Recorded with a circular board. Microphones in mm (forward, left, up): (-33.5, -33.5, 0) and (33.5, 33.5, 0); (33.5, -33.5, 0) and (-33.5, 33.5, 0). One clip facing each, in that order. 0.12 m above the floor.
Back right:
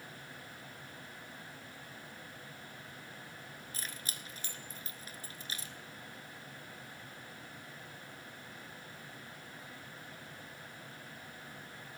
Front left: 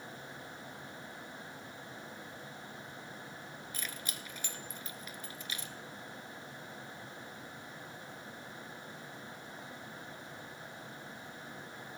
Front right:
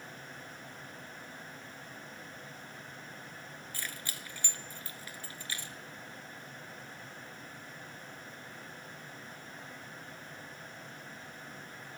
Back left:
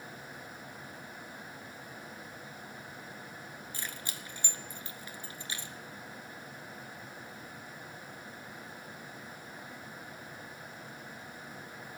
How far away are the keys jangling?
About 1.2 m.